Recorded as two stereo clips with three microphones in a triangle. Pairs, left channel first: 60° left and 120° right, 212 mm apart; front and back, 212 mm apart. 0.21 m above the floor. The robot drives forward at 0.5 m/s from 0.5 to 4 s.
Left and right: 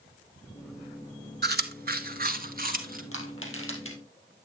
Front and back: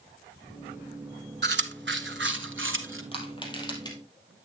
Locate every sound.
1.4 s chewing: 150° right, 0.9 m; by 3.0 s 165° right, 1.6 m
3.1 s crushing: 65° left, 3.5 m; by 4.0 s 70° left, 3 m